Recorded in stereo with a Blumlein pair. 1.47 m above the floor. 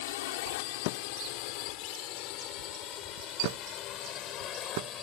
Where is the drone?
50° left; by 5.0 s 30° left.